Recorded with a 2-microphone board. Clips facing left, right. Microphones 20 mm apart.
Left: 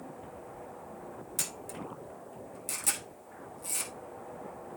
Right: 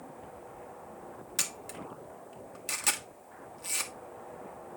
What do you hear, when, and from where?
1.4 s a camera shutter: 35° right (ahead or behind), 1.4 m